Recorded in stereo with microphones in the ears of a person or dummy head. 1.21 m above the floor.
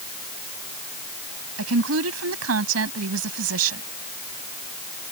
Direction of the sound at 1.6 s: 85° right.